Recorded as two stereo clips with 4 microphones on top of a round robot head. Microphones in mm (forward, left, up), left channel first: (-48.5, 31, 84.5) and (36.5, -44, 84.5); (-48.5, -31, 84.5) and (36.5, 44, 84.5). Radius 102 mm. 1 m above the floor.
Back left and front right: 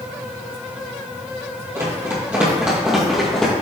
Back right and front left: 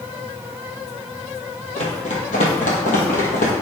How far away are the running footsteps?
About 2 m.